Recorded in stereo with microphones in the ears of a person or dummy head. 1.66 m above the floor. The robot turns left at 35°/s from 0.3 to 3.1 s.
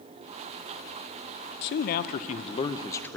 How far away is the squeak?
No squeak in this recording.